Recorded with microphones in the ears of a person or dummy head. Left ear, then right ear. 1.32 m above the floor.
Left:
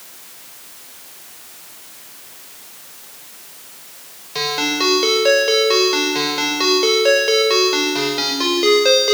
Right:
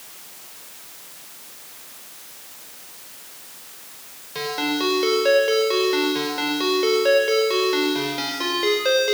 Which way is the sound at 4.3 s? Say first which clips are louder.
Left 5 dB; 20° left (ahead or behind).